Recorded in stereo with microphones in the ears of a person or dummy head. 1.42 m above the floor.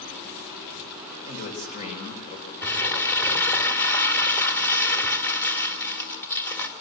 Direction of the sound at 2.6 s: 10° left (ahead or behind).